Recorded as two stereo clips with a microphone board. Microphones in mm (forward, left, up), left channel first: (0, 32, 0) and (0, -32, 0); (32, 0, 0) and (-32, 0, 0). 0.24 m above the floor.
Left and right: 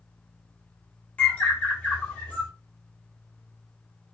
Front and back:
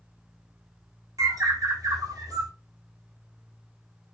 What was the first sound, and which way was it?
A bird, 160° left.